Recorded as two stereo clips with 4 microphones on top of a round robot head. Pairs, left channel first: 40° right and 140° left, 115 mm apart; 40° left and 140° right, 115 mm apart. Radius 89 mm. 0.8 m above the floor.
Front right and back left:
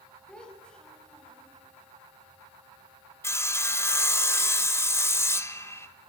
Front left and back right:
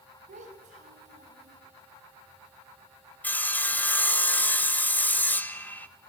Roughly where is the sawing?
Ahead.